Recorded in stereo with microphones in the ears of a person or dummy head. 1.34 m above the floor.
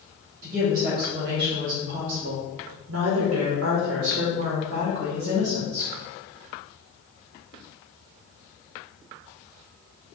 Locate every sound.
0.4 s a woman speaking: 30° right (ahead or behind), 1.7 m; by 5.9 s 25° right (ahead or behind), 1.8 m